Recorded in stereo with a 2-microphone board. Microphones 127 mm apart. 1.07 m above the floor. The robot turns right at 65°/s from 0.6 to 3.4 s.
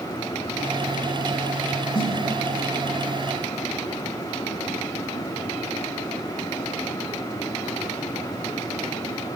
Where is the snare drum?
35° left (ahead or behind), 1.9 m; by 2.1 s 45° left (ahead or behind), 1.9 m.